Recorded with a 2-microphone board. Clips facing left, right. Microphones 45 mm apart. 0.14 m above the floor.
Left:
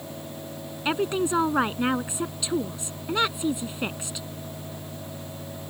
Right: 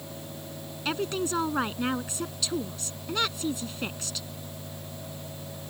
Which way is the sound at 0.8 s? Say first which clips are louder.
Left 5 dB; 20° left (ahead or behind).